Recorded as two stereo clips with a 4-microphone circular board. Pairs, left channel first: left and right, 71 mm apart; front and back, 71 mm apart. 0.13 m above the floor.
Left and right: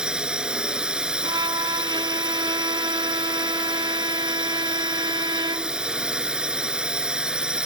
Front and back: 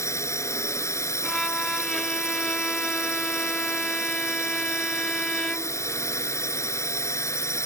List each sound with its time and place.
0.0 s a drone: 15° right
1.2 s a violin: 80° right